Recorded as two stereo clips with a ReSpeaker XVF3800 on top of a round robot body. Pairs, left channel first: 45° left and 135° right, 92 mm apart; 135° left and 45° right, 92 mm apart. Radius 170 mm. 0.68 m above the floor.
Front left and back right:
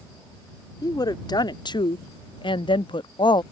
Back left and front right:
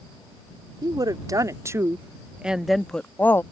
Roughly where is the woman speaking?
Ahead.